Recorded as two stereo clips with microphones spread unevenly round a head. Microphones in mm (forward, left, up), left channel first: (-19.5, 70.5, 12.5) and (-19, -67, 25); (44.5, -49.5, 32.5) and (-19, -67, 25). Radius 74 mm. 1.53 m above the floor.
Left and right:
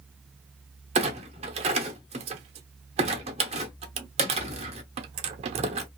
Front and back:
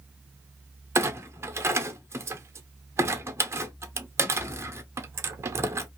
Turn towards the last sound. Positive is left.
turn(degrees=-120)